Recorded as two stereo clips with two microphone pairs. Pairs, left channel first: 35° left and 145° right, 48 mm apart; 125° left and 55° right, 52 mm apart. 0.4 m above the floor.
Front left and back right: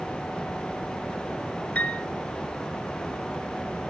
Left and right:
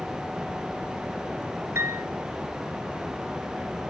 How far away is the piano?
About 2.5 m.